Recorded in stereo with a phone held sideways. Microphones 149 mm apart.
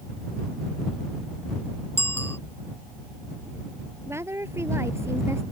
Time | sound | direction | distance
2.0 | a bicycle bell | 15° left (ahead or behind) | ?
4.1 | a woman speaking | 15° right (ahead or behind) | ?